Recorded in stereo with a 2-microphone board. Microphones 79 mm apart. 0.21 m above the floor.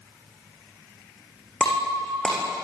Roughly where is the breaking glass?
Centre.